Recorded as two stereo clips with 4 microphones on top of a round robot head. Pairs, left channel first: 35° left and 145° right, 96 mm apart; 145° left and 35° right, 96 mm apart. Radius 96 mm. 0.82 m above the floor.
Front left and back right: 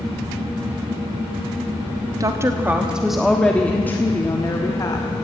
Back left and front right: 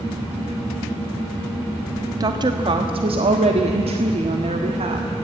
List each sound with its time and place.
2.2 s a woman speaking: 85° right, 1.3 m; by 5.2 s 15° right, 2.5 m